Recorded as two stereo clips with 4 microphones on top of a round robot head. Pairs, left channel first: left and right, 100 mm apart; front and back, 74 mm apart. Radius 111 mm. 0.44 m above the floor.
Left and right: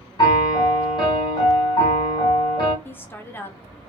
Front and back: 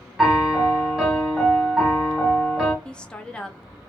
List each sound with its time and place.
0.2 s a piano: 95° left, 1.3 m
2.9 s a woman speaking: 60° left, 0.8 m